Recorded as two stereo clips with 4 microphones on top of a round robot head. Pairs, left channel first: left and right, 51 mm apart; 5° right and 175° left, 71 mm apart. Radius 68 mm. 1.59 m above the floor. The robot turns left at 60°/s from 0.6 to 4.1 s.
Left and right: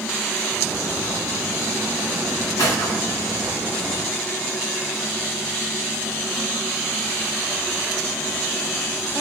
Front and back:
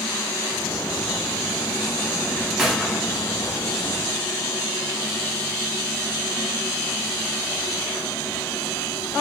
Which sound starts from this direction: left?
A gunshot, at 2.6 s.